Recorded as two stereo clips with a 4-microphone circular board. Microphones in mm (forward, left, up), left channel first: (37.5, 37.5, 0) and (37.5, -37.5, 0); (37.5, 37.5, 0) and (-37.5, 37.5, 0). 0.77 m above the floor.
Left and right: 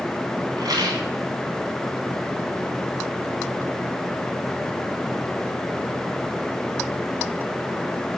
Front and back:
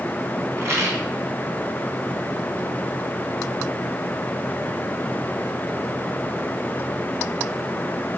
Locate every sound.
0.6 s a rattle: 125° right, 3.5 m